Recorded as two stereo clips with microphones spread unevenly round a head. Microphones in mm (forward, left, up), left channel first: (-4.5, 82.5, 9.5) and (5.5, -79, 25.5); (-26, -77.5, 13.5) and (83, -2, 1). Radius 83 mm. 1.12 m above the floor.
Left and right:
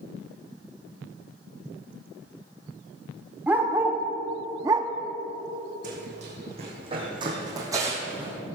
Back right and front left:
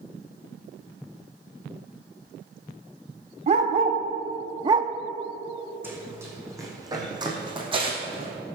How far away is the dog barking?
About 1.5 m.